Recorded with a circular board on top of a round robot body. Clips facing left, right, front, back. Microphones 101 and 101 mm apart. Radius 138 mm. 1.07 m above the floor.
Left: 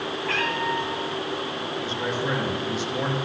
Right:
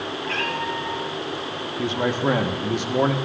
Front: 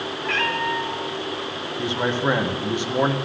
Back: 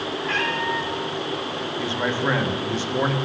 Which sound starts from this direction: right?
A man speaking, at 1.8 s.